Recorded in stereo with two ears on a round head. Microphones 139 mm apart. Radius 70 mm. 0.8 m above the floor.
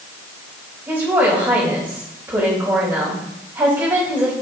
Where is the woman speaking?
15° right (ahead or behind), 4 m.